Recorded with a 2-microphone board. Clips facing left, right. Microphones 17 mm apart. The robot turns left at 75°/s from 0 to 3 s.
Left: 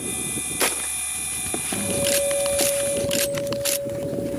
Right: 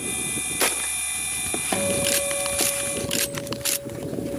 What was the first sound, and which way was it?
A guitar, 45° right.